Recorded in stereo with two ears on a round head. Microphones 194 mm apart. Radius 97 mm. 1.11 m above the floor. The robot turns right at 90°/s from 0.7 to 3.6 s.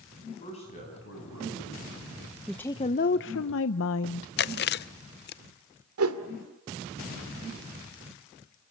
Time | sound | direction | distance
0.2 | a man speaking | 30° left | 9.5 m
2.5 | a woman speaking | straight ahead | 0.7 m
4.4 | chewing | 50° left (ahead or behind) | 0.5 m
6.0 | a whoosh | 75° right (ahead or behind) | 2 m